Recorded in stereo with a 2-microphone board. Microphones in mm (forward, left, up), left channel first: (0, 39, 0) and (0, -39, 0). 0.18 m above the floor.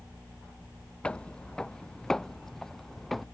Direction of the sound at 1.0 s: 15° left (ahead or behind).